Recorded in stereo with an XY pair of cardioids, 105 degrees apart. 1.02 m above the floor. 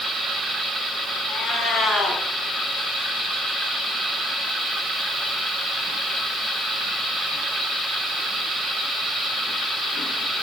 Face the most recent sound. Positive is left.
turn(degrees=55)